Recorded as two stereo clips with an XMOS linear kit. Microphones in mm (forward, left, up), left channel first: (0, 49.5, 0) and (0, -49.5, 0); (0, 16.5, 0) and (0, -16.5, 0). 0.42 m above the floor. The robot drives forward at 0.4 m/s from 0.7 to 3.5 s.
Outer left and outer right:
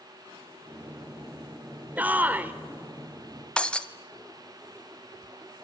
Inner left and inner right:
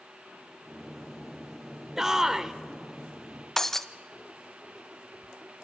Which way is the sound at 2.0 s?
15° right (ahead or behind).